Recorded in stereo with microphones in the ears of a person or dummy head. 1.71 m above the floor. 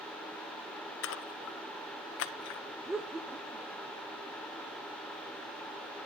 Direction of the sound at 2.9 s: 5° right (ahead or behind).